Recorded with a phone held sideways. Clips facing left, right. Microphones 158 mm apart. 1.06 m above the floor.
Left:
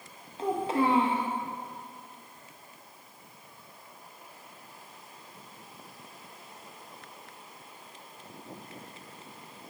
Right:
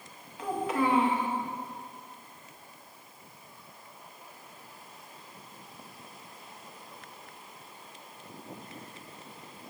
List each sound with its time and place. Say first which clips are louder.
0.4 s a child speaking: left 2 dB; 30° left (ahead or behind), 0.6 m